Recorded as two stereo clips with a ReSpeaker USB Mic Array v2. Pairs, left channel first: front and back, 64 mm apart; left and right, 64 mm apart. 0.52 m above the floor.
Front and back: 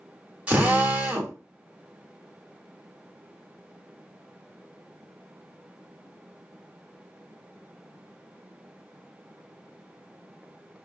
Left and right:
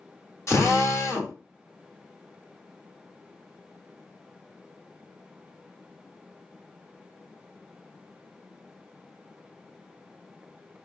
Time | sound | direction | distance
0.5 | a drill | 115° left | 1.9 m